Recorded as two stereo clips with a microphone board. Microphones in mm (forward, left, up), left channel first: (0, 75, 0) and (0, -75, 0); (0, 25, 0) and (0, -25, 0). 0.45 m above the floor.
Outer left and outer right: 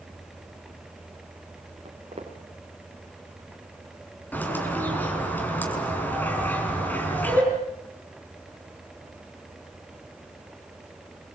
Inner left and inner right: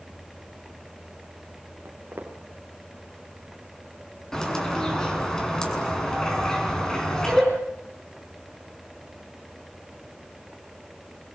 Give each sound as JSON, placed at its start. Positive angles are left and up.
{"t": 1.9, "sound": "footsteps", "side_deg": -45, "distance_m": 5.0}
{"t": 4.3, "sound": "a bird", "side_deg": 10, "distance_m": 5.5}